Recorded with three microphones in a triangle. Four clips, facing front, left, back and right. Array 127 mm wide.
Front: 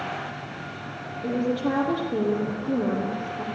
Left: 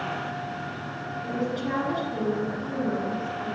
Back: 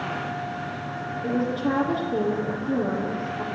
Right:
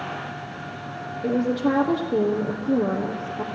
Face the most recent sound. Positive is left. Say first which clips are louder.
# right 8 dB, even
turn(degrees=-85)